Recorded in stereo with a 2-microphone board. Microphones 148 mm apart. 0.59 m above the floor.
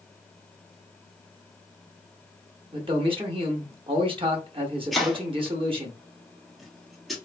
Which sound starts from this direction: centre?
Chopping, at 4.9 s.